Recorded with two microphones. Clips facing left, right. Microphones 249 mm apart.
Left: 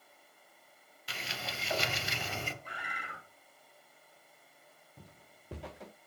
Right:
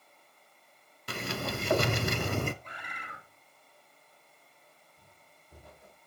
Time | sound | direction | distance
1.1 | a sliding door | 55° right (ahead or behind) | 0.8 m
2.6 | a bird | 10° left (ahead or behind) | 3.5 m
5.0 | footsteps | 80° left | 0.9 m